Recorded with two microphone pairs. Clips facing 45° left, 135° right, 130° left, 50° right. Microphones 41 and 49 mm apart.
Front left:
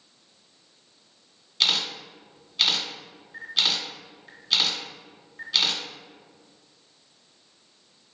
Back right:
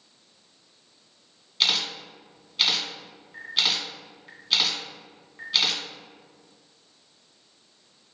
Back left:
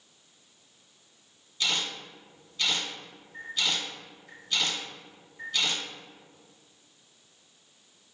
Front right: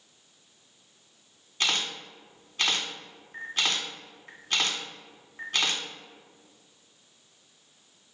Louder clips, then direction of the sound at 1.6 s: Even, front right 2 dB; 55° right.